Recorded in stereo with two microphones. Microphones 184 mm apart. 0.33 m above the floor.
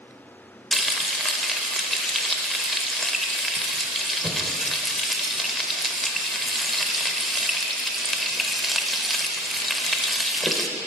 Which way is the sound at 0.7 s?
Centre (ahead or behind).